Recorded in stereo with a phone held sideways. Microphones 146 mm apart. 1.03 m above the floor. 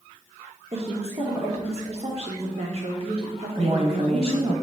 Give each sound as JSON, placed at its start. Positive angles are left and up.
{"t": 0.7, "sound": "a woman speaking", "side_deg": -45, "distance_m": 1.1}
{"t": 3.5, "sound": "a woman speaking", "side_deg": -40, "distance_m": 1.1}